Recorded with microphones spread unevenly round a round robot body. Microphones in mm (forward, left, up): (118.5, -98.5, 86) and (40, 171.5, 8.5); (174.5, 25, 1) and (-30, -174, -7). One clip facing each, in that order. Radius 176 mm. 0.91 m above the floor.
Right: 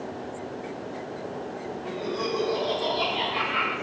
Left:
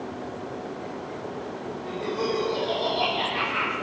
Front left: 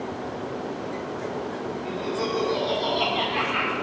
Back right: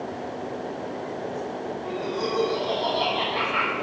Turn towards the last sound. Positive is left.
turn(degrees=10)